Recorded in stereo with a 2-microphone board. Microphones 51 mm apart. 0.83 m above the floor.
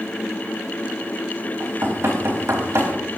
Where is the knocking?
75° right (ahead or behind), 4 m.